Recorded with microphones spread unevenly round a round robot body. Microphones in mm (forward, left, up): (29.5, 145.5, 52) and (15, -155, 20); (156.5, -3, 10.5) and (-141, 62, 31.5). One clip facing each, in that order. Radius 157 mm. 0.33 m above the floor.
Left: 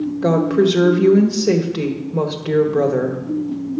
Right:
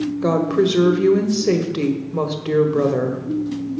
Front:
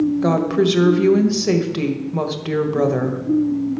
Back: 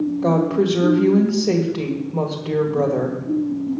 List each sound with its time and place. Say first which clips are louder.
0.2 s a woman speaking: left 3 dB, front 1 dB; 20° right, 1.7 m